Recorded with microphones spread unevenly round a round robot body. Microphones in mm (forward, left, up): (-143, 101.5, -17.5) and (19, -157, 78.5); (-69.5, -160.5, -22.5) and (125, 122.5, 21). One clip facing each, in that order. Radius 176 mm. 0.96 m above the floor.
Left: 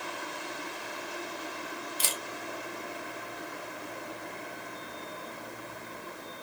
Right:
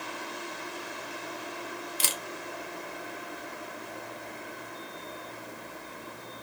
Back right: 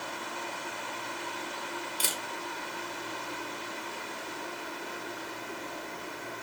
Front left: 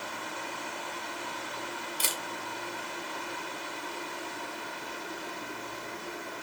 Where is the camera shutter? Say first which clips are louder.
Right 1 dB, even; 40° right, 0.6 m.